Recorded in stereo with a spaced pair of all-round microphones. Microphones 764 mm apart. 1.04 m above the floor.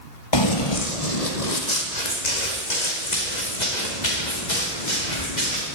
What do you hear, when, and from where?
0.3 s running footsteps: 35° left (ahead or behind), 1.2 m; by 5.8 s 70° left (ahead or behind), 6.5 m